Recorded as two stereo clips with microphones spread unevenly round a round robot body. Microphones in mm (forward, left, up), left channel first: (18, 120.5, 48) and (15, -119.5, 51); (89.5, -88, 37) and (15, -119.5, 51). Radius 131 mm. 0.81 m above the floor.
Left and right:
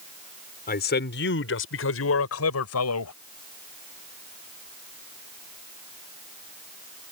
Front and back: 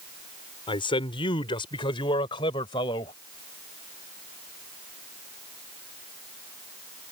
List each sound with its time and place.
0.7 s a man speaking: 35° left; by 3.1 s 70° left